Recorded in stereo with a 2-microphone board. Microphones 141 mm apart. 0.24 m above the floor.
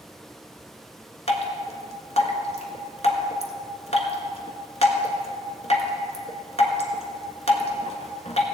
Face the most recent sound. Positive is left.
turn(degrees=50)  # may be behind; listen again after turning